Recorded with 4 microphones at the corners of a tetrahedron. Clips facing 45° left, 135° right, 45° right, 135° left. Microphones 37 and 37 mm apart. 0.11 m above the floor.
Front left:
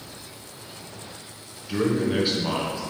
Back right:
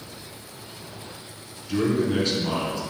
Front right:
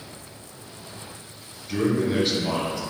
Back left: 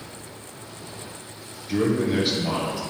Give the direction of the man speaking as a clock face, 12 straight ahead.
10 o'clock.